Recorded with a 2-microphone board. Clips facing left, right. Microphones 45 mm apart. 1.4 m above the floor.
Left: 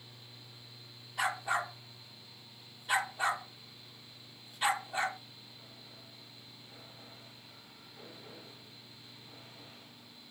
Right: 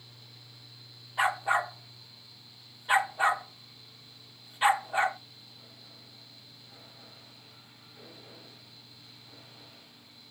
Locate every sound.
1.2 s a dog barking: 25° right (ahead or behind), 1.1 m